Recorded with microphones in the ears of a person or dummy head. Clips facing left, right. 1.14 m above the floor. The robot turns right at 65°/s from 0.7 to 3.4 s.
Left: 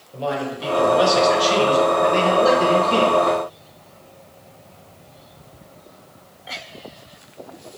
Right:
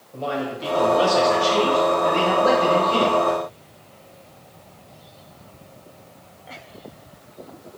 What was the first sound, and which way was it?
A man speaking, 10° left.